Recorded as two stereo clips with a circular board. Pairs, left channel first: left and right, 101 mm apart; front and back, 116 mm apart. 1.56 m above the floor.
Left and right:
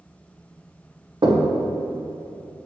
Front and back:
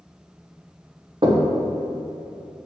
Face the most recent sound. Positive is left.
turn(degrees=-135)